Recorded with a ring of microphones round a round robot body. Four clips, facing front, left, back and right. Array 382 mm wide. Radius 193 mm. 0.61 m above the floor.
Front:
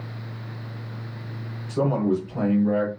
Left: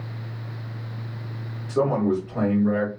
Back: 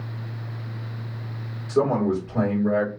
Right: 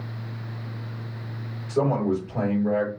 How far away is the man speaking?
About 2.5 m.